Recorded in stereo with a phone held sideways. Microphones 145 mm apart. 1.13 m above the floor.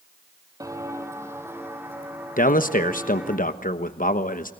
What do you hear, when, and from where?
0.6 s footsteps: 25° right (ahead or behind), 2.0 m; by 3.4 s 10° right (ahead or behind), 4.5 m
2.4 s a man speaking: 70° left (ahead or behind), 1.1 m